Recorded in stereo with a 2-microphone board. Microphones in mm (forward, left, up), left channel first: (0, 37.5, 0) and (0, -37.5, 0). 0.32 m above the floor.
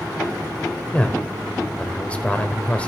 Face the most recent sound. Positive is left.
turn(degrees=15)  # may be behind; listen again after turning